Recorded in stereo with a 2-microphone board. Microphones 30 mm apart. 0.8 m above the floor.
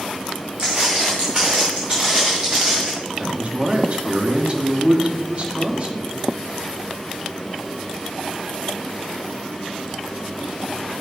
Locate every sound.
0.6 s footsteps: 20° right (ahead or behind), 3 m; by 2.9 s 15° right (ahead or behind), 4.5 m
3.2 s a man speaking: 35° right (ahead or behind), 1.1 m